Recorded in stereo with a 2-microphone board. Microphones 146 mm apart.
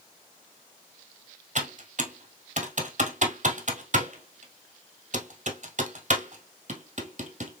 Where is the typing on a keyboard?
55° right (ahead or behind), 1.5 m.